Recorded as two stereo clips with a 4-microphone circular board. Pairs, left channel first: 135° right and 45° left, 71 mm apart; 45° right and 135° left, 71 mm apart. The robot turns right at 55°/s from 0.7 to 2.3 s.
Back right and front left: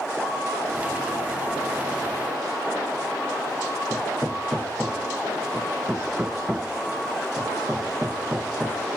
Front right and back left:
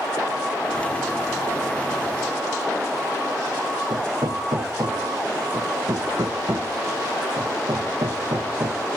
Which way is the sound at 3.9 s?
120° left.